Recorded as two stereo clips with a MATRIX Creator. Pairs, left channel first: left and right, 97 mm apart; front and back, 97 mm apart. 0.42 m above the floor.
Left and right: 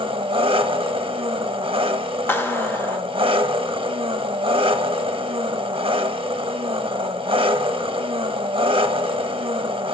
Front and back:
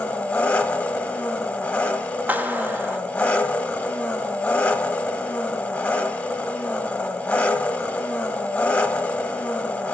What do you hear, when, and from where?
0.0 s an engine running: 70° right, 0.8 m
2.3 s a clap: 125° left, 0.9 m